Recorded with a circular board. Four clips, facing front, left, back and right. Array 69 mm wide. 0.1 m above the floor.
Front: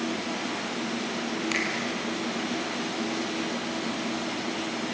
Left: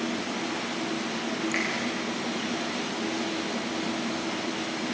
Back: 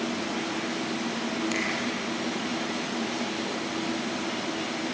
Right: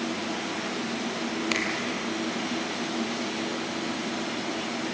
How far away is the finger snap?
About 3 m.